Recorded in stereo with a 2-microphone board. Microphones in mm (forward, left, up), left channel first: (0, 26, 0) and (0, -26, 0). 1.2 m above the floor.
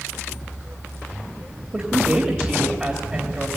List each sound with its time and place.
1.7 s a woman speaking: 20° right (ahead or behind), 2.5 m